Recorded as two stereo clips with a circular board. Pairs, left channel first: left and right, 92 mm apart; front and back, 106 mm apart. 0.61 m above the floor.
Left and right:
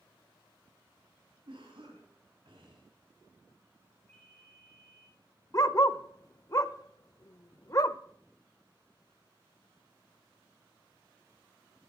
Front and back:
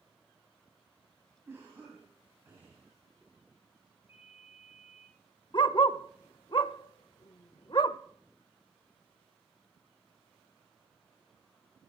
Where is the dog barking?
40° left, 0.6 m.